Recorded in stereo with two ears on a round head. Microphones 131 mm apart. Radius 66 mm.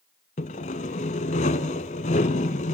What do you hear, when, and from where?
0.4 s sawing: 50° left (ahead or behind), 1.2 m